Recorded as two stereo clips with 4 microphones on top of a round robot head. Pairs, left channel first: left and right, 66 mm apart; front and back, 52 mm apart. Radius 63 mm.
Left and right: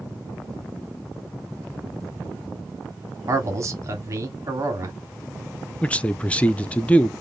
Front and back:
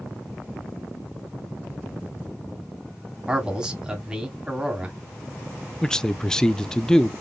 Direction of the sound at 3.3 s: 110° right.